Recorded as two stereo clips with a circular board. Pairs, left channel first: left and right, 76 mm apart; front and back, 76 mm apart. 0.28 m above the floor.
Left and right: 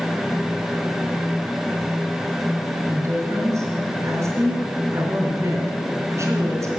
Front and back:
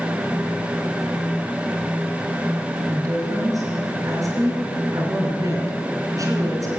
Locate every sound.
2.9 s a woman speaking: 140° right, 3.5 m